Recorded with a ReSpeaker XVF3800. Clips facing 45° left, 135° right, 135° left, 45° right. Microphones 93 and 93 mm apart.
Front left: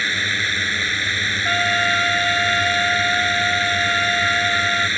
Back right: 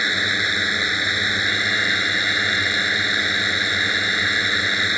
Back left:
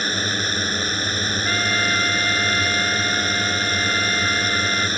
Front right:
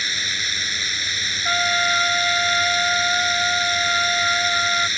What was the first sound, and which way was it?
A drone, 155° left.